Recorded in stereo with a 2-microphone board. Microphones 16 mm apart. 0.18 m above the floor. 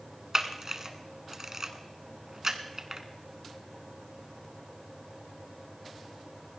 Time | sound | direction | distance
0.3 | a camera shutter | 30° right (ahead or behind) | 1.4 m